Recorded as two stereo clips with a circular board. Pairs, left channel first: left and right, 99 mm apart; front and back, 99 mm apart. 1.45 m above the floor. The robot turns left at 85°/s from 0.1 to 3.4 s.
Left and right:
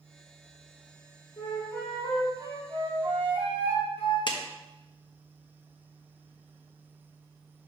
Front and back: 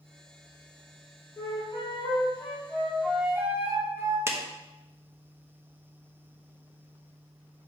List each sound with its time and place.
1.4 s a flute: 55° left, 2.5 m; by 4.2 s 115° right, 2.5 m
4.3 s a clap: 120° left, 1.0 m